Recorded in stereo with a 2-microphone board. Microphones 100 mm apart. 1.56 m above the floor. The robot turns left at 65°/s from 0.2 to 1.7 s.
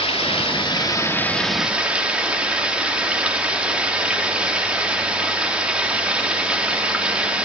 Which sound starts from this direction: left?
Running water, at 0.0 s.